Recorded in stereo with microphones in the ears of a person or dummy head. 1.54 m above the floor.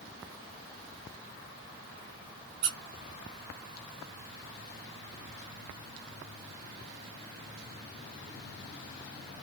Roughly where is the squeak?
Right.